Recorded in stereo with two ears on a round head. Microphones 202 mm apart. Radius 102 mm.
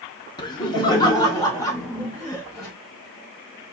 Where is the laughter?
20° left (ahead or behind), 0.9 m; by 2.7 s 15° left (ahead or behind), 2.5 m.